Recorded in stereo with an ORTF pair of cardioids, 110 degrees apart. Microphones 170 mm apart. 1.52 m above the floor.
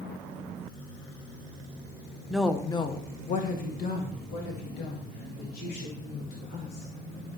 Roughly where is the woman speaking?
Ahead.